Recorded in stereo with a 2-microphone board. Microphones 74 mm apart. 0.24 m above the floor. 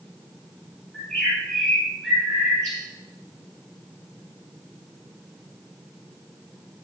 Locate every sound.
0.9 s a bird: 15° left (ahead or behind), 4.5 m